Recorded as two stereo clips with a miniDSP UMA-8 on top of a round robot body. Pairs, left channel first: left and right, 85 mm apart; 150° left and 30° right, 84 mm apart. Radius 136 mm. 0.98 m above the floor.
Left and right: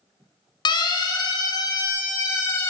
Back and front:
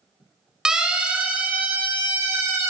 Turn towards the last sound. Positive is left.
turn(degrees=30)